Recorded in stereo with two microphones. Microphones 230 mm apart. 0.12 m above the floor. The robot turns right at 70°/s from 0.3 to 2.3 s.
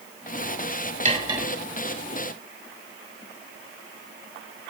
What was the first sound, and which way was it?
Cutlery clinking, 30° right (ahead or behind).